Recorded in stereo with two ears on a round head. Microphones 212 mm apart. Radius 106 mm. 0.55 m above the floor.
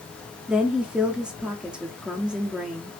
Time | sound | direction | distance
0.5 | a woman speaking | 5° right (ahead or behind) | 0.6 m